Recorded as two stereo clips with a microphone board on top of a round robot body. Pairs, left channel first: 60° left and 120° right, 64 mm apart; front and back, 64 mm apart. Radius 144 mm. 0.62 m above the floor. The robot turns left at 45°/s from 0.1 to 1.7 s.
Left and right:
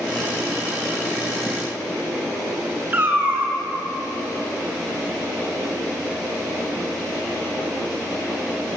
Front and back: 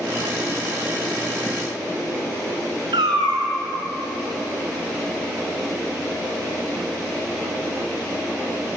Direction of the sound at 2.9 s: 175° left.